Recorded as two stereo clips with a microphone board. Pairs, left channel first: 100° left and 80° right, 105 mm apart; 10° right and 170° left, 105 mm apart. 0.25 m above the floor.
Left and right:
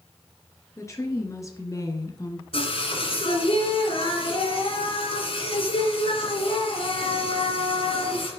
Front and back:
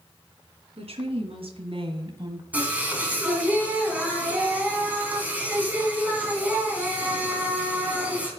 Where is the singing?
95° left, 2.5 m.